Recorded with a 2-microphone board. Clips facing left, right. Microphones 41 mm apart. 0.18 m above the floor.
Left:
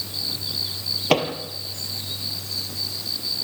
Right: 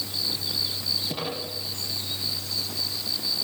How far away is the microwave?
About 3 m.